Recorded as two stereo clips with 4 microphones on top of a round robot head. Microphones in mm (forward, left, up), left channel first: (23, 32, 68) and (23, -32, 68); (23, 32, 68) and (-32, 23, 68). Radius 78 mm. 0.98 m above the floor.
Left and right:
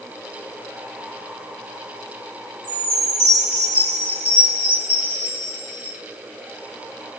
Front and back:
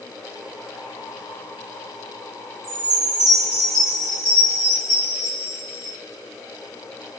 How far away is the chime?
About 3.5 m.